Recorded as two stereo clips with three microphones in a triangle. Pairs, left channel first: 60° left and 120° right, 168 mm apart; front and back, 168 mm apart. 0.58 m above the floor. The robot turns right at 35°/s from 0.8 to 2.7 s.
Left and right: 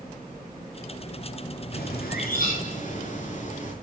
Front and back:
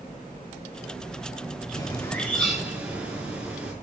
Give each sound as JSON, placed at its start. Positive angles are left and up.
{"t": 1.7, "sound": "a bird", "azimuth_deg": 60, "distance_m": 6.0}